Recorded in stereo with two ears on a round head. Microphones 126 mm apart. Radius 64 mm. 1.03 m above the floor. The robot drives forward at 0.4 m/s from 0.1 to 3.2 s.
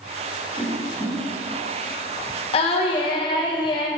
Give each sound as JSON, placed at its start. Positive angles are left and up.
{"t": 0.6, "sound": "a whoosh", "side_deg": -20, "distance_m": 3.0}
{"t": 2.5, "sound": "singing", "side_deg": 45, "distance_m": 0.8}